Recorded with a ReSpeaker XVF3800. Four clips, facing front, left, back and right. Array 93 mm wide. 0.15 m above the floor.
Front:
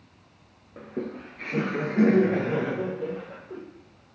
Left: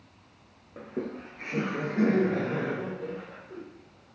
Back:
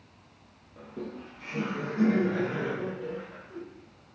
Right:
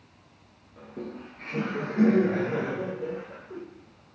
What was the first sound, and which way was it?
Laughter, 45° left.